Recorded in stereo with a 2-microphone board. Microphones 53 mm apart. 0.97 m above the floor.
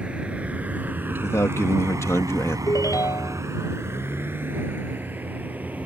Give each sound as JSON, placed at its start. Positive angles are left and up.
{"t": 0.0, "sound": "a vehicle", "side_deg": -20}
{"t": 1.2, "sound": "a man speaking", "side_deg": 55}
{"t": 2.7, "sound": "a ringtone", "side_deg": 85}